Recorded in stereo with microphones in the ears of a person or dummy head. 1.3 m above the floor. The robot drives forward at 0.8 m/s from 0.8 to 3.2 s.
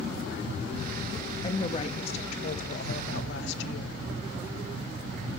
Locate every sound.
1.4 s a woman speaking: 35° left (ahead or behind), 2.5 m; by 4.0 s 70° left (ahead or behind), 1.4 m